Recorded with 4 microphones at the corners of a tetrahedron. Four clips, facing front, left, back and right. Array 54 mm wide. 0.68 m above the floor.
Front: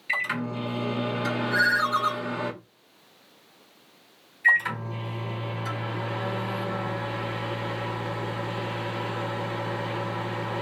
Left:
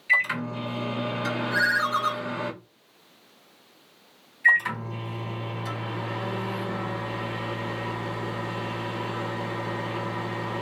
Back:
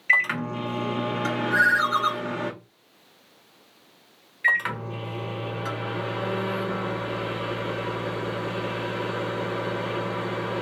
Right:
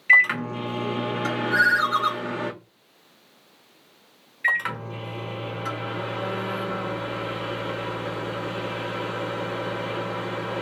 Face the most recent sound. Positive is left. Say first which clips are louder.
# left 3 dB, front 1 dB
turn(degrees=-140)